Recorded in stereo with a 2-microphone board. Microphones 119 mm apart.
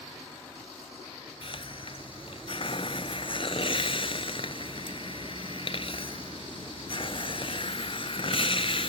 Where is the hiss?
50° left (ahead or behind).